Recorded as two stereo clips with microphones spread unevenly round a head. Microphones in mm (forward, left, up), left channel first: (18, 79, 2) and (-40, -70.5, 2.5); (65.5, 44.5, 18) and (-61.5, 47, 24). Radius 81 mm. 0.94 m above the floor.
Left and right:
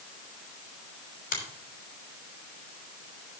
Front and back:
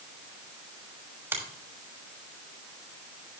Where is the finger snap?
110° left, 6 m.